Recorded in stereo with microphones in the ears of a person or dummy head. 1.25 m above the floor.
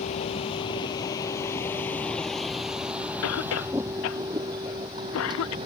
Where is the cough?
80° left.